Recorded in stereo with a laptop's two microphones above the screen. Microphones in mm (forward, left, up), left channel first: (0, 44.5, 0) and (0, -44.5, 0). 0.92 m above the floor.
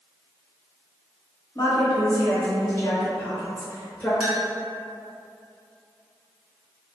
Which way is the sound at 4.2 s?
5° right (ahead or behind).